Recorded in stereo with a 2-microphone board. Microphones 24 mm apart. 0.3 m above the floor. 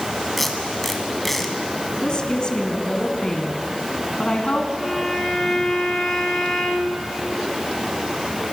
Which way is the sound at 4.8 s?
5° right (ahead or behind).